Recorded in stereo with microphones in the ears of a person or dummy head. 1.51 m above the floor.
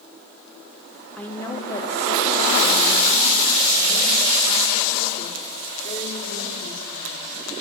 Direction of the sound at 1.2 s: 10° left (ahead or behind).